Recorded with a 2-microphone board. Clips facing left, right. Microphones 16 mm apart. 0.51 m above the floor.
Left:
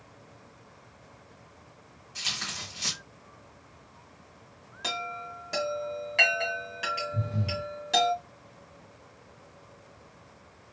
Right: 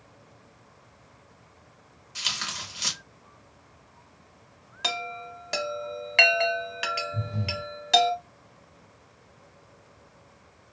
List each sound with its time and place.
2.1 s tearing paper: 20° right (ahead or behind), 0.9 m
4.8 s a chime: 35° right (ahead or behind), 0.6 m
7.1 s breathing: 25° left (ahead or behind), 1.7 m